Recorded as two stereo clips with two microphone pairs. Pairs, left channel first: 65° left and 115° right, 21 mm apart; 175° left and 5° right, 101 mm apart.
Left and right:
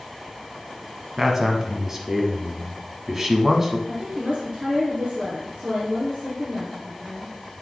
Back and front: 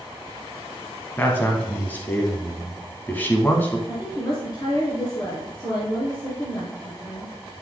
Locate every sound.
1.2 s a man speaking: 150° right, 1.1 m
3.9 s a woman speaking: 140° right, 2.5 m